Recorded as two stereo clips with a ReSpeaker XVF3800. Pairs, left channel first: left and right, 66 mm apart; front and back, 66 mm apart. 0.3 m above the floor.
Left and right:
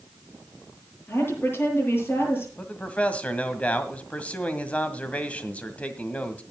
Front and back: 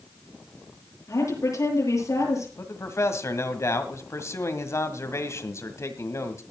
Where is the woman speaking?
35° left, 8.5 m.